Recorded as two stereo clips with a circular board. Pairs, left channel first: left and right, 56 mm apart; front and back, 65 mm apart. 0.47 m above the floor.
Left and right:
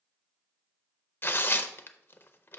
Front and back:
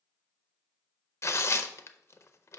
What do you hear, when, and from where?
1.2 s tearing paper: 45° left, 0.5 m